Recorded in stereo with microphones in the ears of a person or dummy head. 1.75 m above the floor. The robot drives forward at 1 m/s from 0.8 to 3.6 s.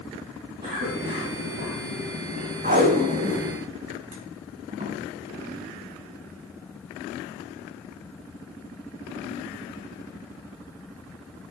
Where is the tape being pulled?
45° right (ahead or behind), 2 m; by 5.0 s 30° right (ahead or behind), 3 m.